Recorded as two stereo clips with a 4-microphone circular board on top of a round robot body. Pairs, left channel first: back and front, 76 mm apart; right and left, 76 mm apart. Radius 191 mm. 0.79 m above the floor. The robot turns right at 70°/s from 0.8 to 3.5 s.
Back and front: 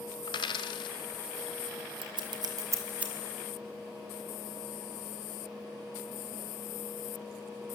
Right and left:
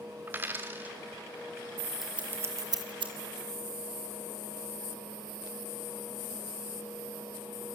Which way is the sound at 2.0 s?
5° left.